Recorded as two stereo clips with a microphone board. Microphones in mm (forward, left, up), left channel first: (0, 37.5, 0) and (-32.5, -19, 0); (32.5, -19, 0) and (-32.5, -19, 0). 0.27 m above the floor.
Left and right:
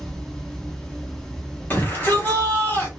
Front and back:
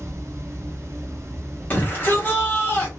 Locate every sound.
0.0 s running water: 140° left, 0.9 m
1.7 s a shout: 35° left, 1.8 m